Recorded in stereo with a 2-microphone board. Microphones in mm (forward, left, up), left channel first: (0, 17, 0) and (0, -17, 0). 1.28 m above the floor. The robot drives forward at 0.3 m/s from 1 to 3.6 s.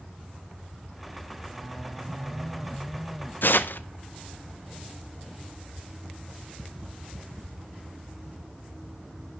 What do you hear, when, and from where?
3.4 s tearing paper: 75° left (ahead or behind), 0.6 m